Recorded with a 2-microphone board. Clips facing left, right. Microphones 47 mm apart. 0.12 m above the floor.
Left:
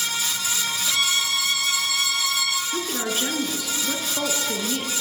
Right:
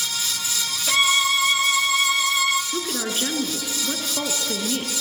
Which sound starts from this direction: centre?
A woman speaking, at 2.7 s.